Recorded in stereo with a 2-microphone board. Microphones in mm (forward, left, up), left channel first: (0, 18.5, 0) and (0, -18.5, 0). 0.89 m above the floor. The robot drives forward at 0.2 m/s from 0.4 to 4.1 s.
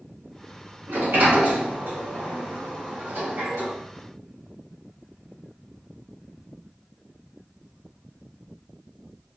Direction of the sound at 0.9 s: 75° right (ahead or behind).